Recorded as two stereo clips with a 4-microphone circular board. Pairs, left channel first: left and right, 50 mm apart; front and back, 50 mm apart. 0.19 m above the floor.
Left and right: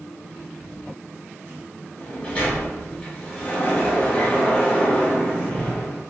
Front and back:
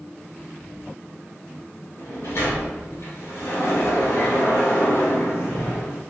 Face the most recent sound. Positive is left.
turn(degrees=30)